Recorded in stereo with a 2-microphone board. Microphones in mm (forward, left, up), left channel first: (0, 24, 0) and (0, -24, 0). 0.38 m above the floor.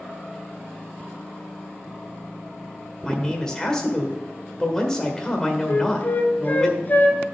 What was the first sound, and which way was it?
A man speaking, 10° left (ahead or behind).